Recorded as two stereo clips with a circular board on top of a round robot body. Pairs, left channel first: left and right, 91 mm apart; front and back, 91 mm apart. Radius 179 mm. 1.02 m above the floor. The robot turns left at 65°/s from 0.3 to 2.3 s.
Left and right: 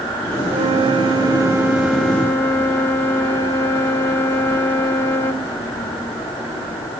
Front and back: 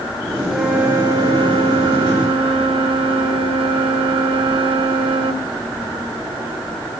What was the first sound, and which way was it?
A flute, 85° right.